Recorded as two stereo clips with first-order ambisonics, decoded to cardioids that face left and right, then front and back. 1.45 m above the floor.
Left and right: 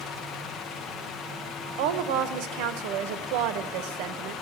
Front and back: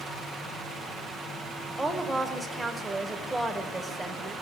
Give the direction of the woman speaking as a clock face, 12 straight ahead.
3 o'clock.